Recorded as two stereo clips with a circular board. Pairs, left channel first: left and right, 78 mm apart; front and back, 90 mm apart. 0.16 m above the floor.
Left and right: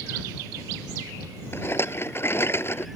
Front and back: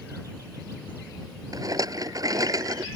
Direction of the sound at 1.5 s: 140° left.